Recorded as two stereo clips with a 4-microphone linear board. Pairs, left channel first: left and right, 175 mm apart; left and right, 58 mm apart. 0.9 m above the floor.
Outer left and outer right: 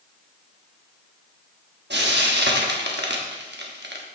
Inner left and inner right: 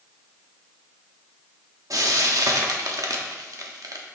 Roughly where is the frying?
Right.